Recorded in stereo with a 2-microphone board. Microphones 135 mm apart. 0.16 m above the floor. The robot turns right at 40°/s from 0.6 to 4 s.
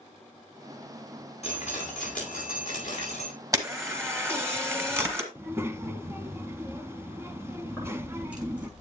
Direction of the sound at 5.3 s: 20° right (ahead or behind).